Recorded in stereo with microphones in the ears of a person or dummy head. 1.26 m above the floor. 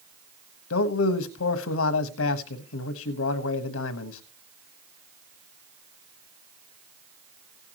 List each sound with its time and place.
0.7 s a man speaking: 90° left, 1.3 m